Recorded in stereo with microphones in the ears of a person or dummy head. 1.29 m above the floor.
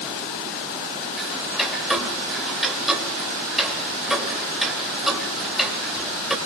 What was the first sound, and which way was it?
Ticking, 5° right (ahead or behind).